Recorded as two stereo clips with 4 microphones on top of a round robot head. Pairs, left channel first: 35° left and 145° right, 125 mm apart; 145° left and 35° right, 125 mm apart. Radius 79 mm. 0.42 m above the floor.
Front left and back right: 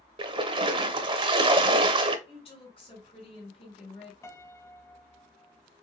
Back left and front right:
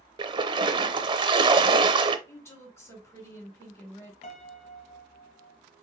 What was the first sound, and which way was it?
A splash, 95° right.